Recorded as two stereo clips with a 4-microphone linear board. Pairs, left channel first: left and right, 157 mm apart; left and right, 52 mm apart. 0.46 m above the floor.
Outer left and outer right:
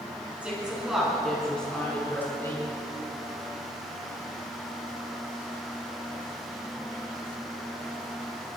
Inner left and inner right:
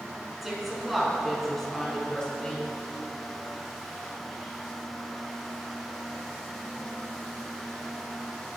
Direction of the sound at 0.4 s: 10° right (ahead or behind).